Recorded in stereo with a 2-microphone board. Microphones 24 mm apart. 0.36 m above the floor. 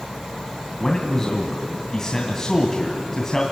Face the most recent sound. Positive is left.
turn(degrees=20)  # may be behind; listen again after turning